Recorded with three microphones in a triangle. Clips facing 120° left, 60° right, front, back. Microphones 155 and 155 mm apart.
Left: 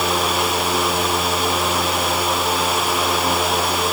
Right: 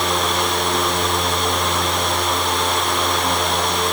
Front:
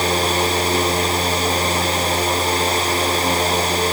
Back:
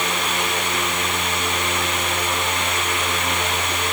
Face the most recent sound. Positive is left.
No sound to turn to.